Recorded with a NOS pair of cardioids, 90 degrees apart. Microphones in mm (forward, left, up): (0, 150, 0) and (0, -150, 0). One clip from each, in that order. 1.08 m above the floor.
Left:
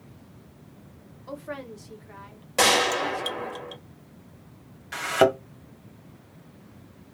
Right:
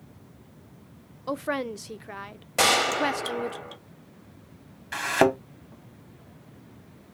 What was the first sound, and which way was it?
A woman speaking, 50° right.